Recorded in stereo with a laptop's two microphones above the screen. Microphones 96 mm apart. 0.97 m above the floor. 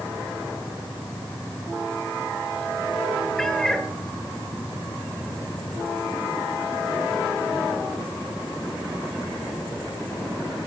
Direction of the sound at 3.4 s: 5° left (ahead or behind).